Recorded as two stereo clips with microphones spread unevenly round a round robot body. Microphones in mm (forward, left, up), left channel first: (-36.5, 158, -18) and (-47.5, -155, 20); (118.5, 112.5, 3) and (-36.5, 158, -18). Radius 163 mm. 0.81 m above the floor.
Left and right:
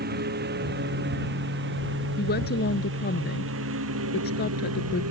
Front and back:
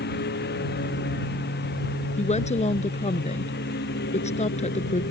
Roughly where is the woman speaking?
Ahead left.